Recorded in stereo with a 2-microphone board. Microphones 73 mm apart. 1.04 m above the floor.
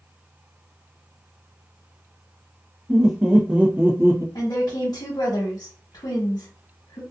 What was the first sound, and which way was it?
Laughter, 5° right (ahead or behind).